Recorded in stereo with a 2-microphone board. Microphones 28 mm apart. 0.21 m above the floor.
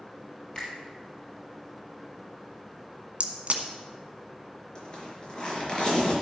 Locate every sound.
0.6 s a finger snap: 30° left (ahead or behind), 3.5 m
3.2 s a crack: 50° right (ahead or behind), 1.2 m
4.8 s a zipper: 35° left (ahead or behind), 4 m